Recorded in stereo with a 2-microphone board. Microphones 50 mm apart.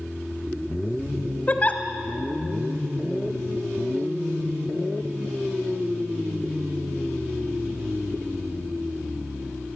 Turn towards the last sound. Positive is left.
turn(degrees=30)  # may be behind; listen again after turning